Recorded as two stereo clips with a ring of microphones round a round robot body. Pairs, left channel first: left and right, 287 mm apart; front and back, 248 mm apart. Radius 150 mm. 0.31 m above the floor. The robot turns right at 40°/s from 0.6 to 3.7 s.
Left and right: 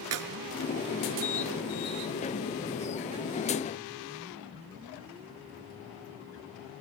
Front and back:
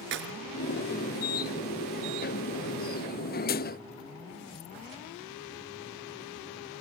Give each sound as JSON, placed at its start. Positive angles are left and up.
{"t": 0.1, "sound": "a clap", "azimuth_deg": -130, "distance_m": 3.5}